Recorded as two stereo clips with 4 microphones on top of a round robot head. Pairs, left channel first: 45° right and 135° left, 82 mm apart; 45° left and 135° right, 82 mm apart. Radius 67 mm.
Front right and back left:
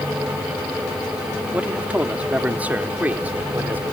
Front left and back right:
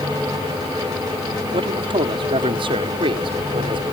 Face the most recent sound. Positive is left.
turn(degrees=-155)